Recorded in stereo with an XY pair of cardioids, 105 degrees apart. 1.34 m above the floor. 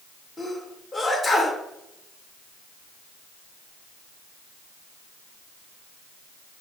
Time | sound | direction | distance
0.4 | a sneeze | 30° left | 1.8 m